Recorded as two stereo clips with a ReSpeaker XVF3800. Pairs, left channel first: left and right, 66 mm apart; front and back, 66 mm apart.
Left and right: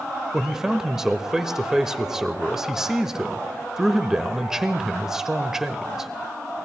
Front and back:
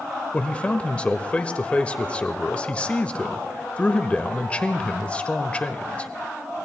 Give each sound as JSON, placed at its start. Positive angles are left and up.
{"t": 0.3, "sound": "a man speaking", "azimuth_deg": -20, "distance_m": 0.8}